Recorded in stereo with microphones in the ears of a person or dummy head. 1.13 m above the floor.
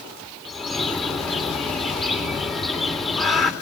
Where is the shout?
No shout in this recording.